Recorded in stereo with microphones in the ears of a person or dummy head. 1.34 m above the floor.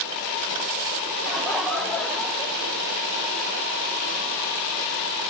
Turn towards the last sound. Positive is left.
turn(degrees=5)  # may be behind; listen again after turning